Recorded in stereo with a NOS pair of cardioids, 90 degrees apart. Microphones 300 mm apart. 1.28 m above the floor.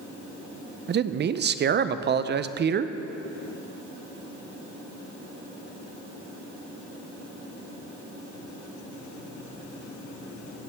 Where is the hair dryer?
I don't hear a hair dryer.